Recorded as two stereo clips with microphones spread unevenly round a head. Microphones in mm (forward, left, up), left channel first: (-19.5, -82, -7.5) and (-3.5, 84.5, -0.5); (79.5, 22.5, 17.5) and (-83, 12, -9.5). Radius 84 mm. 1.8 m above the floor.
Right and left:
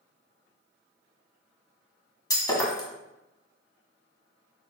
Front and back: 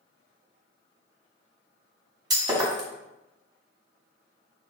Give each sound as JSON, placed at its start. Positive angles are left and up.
{"t": 2.3, "sound": "breaking glass", "azimuth_deg": -120, "distance_m": 1.7}